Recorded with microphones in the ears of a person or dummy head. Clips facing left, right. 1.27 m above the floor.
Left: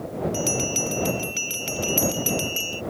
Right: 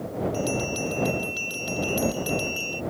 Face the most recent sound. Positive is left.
turn(degrees=40)  # may be behind; listen again after turning